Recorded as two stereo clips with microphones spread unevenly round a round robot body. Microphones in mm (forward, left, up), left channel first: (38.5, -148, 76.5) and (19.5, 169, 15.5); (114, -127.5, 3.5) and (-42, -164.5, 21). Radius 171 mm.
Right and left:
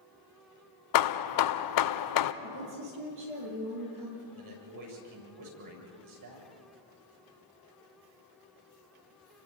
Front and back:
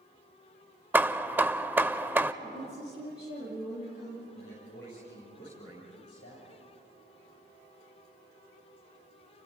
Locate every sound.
0.9 s hammering: 85° right, 0.9 m
2.4 s a woman speaking: 120° left, 8.5 m
4.3 s a man speaking: 70° left, 8 m